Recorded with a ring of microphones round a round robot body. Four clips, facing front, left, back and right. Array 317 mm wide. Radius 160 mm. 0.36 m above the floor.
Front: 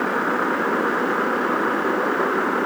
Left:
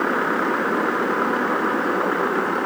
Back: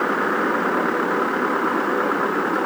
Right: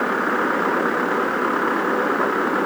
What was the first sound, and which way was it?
Only background noise.